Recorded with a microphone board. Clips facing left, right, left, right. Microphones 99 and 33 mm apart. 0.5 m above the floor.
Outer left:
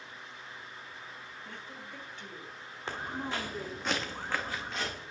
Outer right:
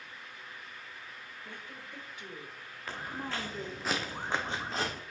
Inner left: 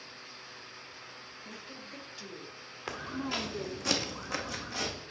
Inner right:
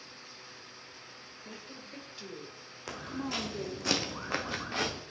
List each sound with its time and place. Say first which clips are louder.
1.4 s a woman speaking: even, even; 15° right (ahead or behind), 3 m; by 3.9 s 10° left (ahead or behind), 1.1 m
2.9 s footsteps: outer left 2 dB, inner left 1 dB; 25° left (ahead or behind), 1.8 m; by 5.0 s 45° right (ahead or behind), 1.6 m